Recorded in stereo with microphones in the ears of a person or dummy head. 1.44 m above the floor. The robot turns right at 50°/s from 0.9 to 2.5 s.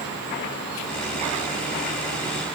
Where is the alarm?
I don't hear an alarm.